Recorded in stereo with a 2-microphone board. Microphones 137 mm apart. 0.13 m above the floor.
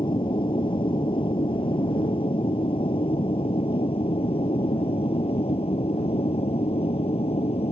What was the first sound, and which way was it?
An aircraft, 40° left (ahead or behind).